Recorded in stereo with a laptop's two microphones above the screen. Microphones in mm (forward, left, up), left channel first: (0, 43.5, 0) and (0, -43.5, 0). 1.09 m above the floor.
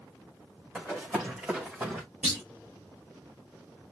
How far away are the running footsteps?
About 4 m.